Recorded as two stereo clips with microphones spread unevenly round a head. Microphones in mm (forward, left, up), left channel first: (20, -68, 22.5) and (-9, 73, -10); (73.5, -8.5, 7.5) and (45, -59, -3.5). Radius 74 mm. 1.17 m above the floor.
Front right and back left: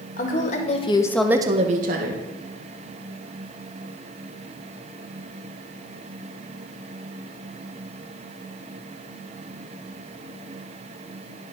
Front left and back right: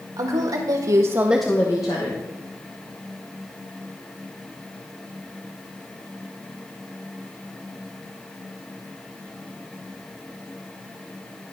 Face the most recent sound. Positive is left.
turn(degrees=105)